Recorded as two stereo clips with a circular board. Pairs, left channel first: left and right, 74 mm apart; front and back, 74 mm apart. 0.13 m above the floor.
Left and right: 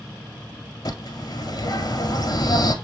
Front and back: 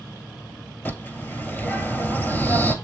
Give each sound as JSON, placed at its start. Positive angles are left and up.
{"t": 0.8, "sound": "a bird", "azimuth_deg": 65, "distance_m": 0.5}